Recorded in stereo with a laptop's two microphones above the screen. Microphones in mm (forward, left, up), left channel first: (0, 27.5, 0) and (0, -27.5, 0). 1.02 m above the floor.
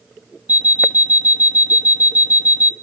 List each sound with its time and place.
0.5 s an alarm clock: 30° right (ahead or behind), 0.6 m